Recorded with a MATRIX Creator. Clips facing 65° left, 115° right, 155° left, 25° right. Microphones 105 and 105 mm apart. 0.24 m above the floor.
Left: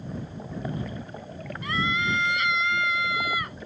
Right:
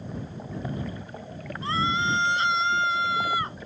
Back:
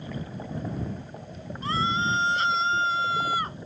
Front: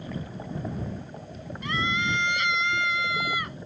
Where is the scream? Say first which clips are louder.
Right 2 dB, back 3 dB; 160° right.